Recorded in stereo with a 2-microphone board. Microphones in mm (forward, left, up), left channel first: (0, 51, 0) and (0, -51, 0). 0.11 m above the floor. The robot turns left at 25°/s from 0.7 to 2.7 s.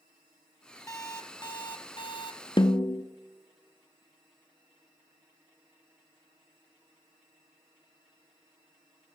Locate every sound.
0.9 s an alarm clock: 145° left, 1.0 m; by 2.4 s 105° left, 1.0 m
2.6 s a snare drum: 55° left (ahead or behind), 0.6 m; by 3.0 s 50° left (ahead or behind), 0.6 m